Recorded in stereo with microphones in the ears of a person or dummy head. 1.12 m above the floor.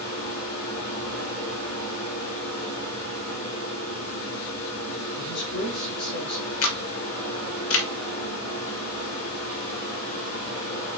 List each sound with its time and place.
0.0 s a fan: 80° left, 3 m
5.2 s a man speaking: 60° left (ahead or behind), 3.5 m
6.6 s a camera shutter: 75° left (ahead or behind), 2 m